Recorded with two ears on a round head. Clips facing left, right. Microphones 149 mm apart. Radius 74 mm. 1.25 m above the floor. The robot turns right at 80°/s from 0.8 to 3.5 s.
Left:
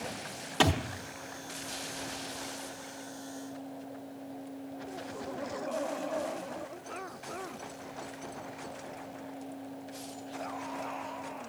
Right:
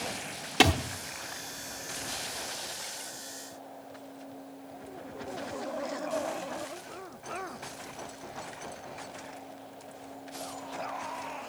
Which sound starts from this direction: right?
A thud, at 0.6 s.